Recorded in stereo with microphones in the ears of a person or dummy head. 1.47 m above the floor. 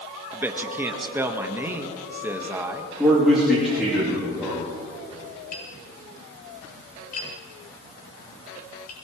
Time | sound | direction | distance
0.3 | a man speaking | 10° right (ahead or behind) | 1.4 m
3.0 | a man speaking | centre (ahead or behind) | 3.5 m
5.5 | tapping | 50° left (ahead or behind) | 6.5 m